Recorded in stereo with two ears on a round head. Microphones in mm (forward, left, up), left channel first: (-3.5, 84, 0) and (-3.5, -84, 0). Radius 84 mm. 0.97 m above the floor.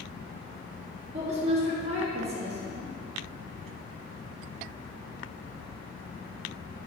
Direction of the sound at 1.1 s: 35° right (ahead or behind).